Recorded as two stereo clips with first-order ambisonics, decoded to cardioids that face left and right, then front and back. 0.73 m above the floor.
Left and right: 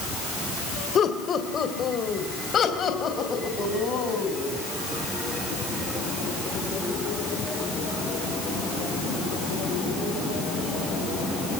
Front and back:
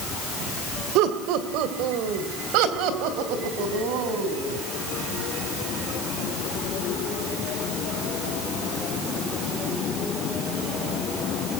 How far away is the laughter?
About 2.5 m.